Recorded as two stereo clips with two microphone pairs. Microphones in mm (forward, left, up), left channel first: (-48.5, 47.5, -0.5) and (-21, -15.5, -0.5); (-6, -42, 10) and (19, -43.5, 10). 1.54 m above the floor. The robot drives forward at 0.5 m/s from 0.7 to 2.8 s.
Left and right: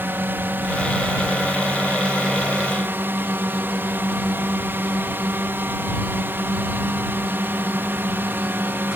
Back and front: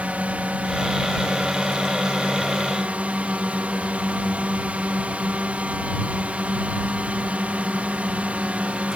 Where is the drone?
10° right.